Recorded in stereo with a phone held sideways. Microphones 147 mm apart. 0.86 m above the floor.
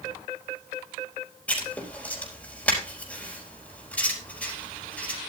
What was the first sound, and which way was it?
Writing, 10° left (ahead or behind).